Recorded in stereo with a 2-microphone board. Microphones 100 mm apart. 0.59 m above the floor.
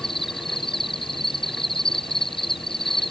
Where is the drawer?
I don't hear a drawer.